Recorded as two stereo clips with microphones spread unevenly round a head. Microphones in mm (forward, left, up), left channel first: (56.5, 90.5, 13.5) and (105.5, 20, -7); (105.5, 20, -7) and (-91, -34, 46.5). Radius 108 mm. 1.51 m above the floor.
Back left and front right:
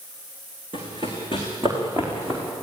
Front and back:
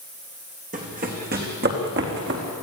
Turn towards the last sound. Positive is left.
turn(degrees=-145)